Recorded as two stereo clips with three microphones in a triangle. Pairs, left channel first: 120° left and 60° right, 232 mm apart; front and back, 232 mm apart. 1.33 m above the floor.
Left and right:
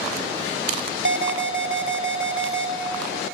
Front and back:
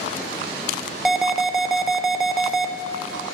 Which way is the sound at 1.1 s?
90° right.